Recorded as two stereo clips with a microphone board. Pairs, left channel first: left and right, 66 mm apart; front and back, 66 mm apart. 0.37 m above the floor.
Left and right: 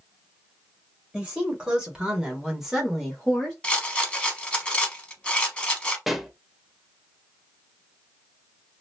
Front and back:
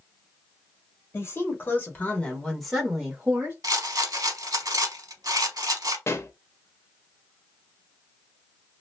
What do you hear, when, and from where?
1.1 s a woman speaking: 20° right, 1.5 m; by 3.5 s 170° left, 1.2 m
3.6 s a rattle: 165° left, 0.7 m
6.1 s a pop: 5° right, 0.5 m